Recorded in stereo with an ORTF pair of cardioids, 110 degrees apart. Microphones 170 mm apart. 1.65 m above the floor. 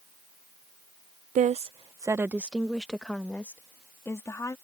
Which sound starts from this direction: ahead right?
A woman speaking, at 1.4 s.